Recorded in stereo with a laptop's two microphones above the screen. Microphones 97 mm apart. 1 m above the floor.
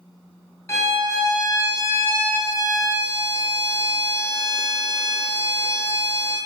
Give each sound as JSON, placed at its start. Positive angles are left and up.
{"t": 0.7, "sound": "a violin", "side_deg": 30, "distance_m": 0.9}